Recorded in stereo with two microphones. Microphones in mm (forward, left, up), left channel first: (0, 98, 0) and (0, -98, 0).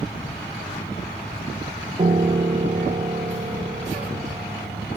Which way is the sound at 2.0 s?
35° right (ahead or behind).